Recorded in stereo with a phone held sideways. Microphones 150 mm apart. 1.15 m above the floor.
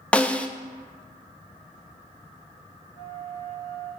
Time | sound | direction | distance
0.1 | a snare drum | 10° left (ahead or behind) | 0.6 m
2.9 | a flute | 20° right (ahead or behind) | 4.5 m